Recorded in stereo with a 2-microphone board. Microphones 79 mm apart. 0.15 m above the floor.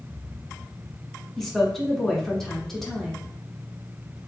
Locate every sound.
1.4 s a woman speaking: 5° left (ahead or behind), 1.1 m